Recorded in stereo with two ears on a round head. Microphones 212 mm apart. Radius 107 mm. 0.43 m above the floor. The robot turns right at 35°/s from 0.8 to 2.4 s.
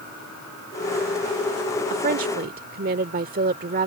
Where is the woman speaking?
35° right (ahead or behind); by 3.9 s 40° right (ahead or behind).